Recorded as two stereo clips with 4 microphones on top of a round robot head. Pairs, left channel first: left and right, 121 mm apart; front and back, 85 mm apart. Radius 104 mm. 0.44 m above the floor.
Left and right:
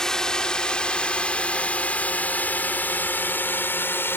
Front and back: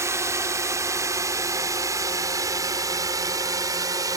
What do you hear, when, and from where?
0.0 s a drone: 170° left; by 4.2 s 155° left